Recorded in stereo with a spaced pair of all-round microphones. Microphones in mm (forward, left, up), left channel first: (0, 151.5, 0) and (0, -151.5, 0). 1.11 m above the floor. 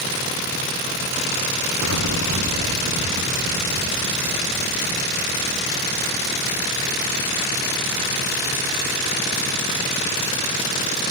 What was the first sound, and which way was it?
An explosion, 60° right (ahead or behind).